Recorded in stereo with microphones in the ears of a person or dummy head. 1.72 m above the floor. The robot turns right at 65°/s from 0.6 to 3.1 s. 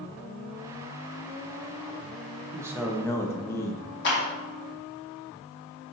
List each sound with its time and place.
2.5 s a man speaking: 20° right, 0.9 m; by 3.8 s 15° left, 0.9 m
4.0 s a clap: 60° left (ahead or behind), 2 m